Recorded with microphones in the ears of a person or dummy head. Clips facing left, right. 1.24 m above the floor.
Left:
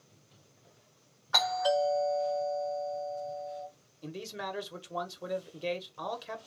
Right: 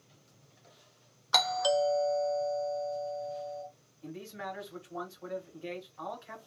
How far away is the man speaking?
About 1.2 m.